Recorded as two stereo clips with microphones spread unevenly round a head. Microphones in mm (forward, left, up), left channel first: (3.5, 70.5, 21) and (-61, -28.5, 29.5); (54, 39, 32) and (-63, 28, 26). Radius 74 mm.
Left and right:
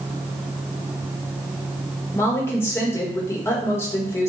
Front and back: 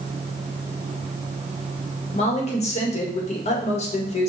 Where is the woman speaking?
10° right, 1.1 m.